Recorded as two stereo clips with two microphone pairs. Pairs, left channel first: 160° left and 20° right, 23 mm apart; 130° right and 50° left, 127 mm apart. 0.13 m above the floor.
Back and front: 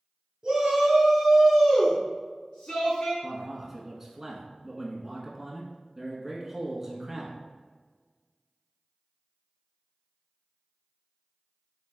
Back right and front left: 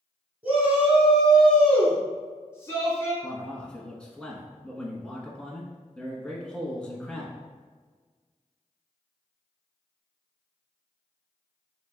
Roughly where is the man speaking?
Ahead right.